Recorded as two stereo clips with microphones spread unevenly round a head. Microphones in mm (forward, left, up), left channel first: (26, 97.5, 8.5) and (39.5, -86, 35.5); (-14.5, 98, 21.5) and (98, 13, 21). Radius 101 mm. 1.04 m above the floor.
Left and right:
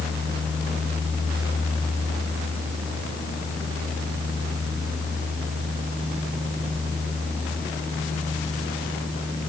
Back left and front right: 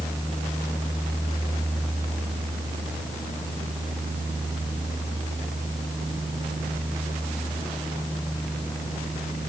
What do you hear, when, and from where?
Only background noise.